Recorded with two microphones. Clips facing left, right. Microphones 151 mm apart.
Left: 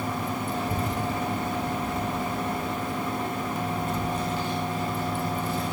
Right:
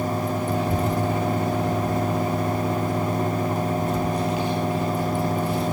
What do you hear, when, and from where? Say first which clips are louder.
0.5 s a child speaking: right 6 dB; 10° right (ahead or behind), 2.5 m